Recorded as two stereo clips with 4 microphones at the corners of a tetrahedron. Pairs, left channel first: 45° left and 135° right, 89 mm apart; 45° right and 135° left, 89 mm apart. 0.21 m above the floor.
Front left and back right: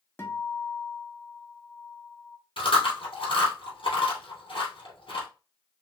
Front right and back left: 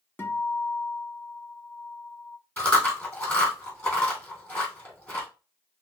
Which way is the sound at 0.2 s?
Straight ahead.